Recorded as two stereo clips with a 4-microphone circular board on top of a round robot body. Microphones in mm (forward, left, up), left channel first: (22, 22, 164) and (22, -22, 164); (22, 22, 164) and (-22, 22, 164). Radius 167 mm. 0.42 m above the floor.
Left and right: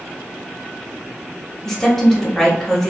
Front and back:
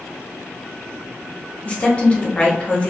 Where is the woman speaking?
15° left, 1.3 m.